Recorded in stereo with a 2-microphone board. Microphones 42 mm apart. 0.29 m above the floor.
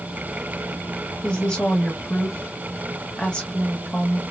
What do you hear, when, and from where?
1.2 s a woman speaking: 25° left (ahead or behind), 1.1 m